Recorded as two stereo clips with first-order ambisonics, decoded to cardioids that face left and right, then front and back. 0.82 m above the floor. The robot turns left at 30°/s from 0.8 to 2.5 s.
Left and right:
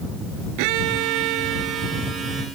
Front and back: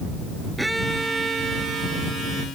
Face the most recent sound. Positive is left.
turn(degrees=-145)